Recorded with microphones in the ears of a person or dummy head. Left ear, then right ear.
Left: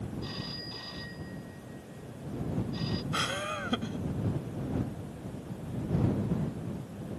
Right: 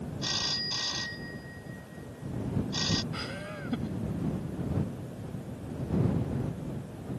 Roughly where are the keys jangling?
No keys jangling in this recording.